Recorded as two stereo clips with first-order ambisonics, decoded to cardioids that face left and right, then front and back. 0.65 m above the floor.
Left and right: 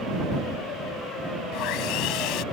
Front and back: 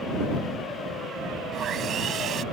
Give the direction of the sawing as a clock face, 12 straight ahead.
8 o'clock.